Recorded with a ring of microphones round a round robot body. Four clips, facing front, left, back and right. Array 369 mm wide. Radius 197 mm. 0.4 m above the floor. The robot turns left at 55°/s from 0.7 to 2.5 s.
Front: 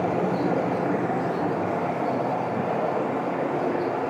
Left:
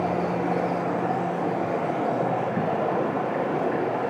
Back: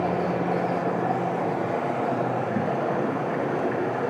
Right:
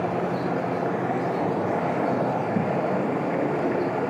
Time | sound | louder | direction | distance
0.0 | running water | left 1 dB, front 1 dB | 25° right | 6 m